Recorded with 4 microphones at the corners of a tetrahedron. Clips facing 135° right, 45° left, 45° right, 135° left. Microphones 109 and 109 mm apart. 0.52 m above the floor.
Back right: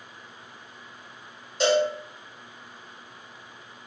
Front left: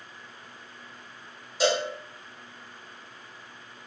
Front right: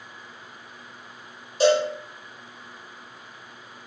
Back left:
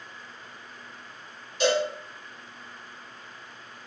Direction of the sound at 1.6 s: 35° right.